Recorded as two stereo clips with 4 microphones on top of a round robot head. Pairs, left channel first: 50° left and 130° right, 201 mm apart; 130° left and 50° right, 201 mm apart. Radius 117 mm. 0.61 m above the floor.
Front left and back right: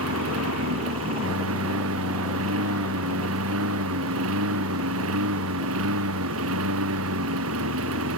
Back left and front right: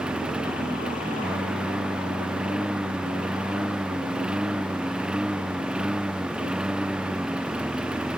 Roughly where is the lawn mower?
Behind right.